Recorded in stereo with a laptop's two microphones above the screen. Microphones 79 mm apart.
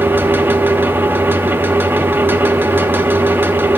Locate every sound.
0.0 s a fan: 25° right (ahead or behind), 1.0 m